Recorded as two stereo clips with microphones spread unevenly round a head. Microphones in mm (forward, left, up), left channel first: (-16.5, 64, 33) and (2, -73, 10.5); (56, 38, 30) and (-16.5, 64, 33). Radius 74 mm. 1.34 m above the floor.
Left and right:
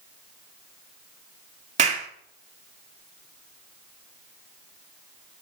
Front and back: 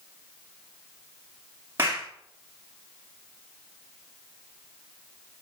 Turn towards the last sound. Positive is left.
turn(degrees=-125)